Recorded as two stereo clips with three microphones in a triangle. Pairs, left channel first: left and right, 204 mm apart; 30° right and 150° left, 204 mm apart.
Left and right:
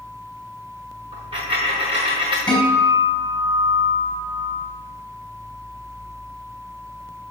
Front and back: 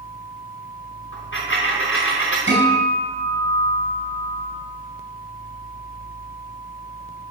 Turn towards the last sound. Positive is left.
turn(degrees=175)